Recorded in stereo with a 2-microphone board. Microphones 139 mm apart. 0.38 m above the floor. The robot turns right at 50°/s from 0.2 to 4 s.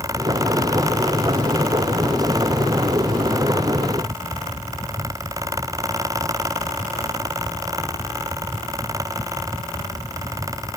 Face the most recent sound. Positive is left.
No sound to turn to.